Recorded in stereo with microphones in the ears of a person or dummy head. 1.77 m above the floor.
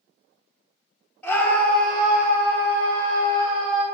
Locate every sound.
1.2 s a scream: 5° left (ahead or behind), 1.6 m; by 3.8 s 35° right (ahead or behind), 5 m